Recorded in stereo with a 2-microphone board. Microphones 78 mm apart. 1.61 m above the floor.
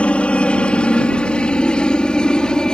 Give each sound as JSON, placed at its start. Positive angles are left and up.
{"t": 0.0, "sound": "a helicopter", "side_deg": 15}